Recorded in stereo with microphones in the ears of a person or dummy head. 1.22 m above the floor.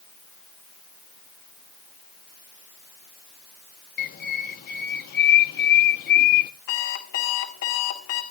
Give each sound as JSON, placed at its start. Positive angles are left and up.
{"t": 4.0, "sound": "a bird", "side_deg": 50, "distance_m": 1.0}
{"t": 6.7, "sound": "an alarm clock", "side_deg": 80, "distance_m": 4.0}